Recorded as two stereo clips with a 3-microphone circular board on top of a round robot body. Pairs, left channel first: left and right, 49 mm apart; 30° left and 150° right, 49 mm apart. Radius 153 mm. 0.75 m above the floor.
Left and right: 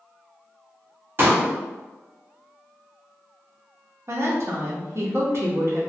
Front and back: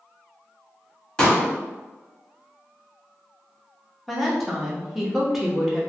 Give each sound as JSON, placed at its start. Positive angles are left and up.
{"t": 1.2, "sound": "a pop", "azimuth_deg": -45, "distance_m": 1.3}
{"t": 4.1, "sound": "a woman speaking", "azimuth_deg": -60, "distance_m": 0.9}